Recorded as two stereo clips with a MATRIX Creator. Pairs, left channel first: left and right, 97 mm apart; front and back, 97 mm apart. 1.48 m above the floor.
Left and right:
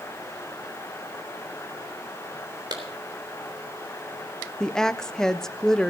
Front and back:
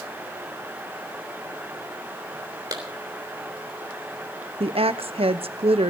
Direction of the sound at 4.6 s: 175° left.